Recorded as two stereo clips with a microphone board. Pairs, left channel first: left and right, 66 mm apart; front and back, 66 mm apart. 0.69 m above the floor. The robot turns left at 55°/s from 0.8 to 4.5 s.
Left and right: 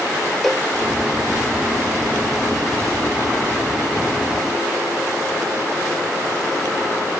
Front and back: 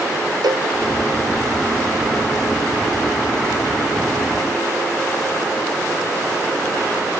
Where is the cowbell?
Straight behind.